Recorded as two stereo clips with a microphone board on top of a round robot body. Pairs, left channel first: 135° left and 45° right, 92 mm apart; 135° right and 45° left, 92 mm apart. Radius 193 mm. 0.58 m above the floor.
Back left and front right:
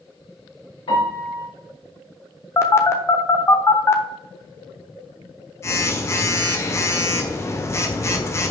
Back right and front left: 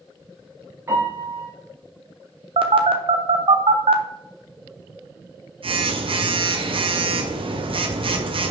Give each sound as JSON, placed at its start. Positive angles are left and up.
{"t": 0.9, "sound": "a piano", "azimuth_deg": 110, "distance_m": 5.0}
{"t": 2.6, "sound": "a phone buzzing", "azimuth_deg": 70, "distance_m": 1.1}